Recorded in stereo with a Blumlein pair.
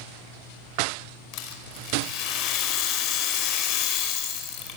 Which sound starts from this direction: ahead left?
A rattle, at 1.3 s.